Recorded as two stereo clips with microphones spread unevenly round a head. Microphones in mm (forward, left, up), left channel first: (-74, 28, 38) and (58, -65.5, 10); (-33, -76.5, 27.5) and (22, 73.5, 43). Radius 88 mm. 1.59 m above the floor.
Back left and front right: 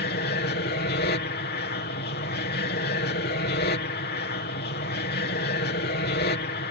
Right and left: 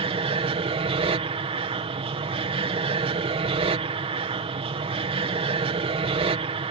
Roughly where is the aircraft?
Behind left.